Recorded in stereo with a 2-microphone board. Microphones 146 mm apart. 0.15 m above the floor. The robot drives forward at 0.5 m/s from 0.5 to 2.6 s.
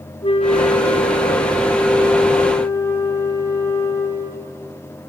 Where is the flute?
45° left (ahead or behind), 0.8 m; by 4.7 s 20° left (ahead or behind), 1.7 m.